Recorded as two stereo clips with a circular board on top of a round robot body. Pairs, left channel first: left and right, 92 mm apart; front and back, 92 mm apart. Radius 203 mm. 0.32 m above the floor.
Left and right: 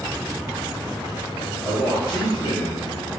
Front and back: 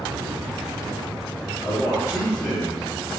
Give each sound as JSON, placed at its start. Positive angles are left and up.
{"t": 1.6, "sound": "a man speaking", "azimuth_deg": 35, "distance_m": 1.1}